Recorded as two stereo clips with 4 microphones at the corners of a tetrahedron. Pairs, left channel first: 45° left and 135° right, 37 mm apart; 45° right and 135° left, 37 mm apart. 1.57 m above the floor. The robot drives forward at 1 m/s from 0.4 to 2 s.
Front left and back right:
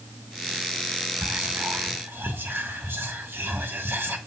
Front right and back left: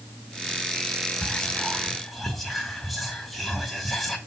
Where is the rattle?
I don't hear a rattle.